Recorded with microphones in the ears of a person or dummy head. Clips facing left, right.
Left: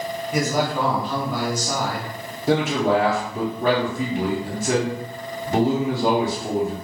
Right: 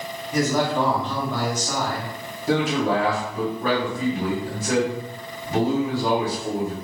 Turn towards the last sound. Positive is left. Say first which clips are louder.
# left 2 dB
turn(degrees=15)  # may be behind; listen again after turning